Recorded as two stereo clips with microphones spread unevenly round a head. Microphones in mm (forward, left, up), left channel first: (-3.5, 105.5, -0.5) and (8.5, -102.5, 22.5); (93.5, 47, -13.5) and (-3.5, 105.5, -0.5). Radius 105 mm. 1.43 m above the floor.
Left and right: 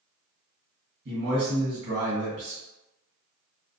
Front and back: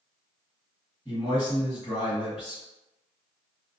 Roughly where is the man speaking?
Behind right.